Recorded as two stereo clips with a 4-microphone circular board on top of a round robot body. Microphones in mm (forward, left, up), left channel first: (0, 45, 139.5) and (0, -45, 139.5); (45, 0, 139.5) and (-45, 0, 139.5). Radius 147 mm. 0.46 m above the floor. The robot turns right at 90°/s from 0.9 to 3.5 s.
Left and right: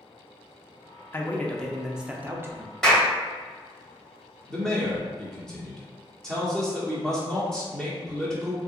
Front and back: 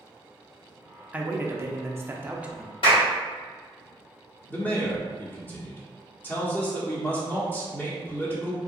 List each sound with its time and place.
1.1 s a man speaking: 120° left, 0.7 m; by 2.7 s 95° right, 0.7 m
2.8 s a clap: 5° left, 2.0 m; by 3.1 s 30° left, 2.0 m
4.5 s a man speaking: 20° left, 1.4 m